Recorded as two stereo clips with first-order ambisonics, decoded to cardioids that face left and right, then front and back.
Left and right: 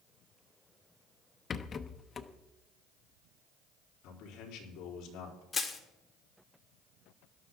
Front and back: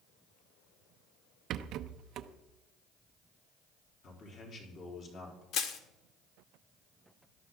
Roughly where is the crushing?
Ahead.